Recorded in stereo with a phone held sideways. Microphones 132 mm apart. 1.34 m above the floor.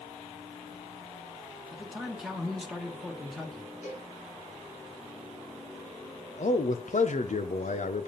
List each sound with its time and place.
1.7 s a man speaking: centre (ahead or behind), 1.3 m
3.8 s a cowbell: 80° left, 4 m
6.4 s a man speaking: 70° left (ahead or behind), 1.0 m